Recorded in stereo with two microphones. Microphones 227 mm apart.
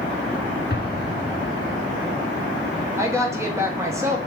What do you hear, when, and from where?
0.7 s an explosion: 40° left (ahead or behind), 1.4 m
3.0 s a woman speaking: 10° right (ahead or behind), 1.1 m